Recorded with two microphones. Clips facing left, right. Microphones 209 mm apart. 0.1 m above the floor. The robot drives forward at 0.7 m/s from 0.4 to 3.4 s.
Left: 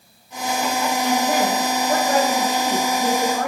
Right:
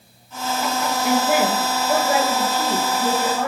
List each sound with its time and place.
1.0 s a woman speaking: 5° right (ahead or behind), 1.1 m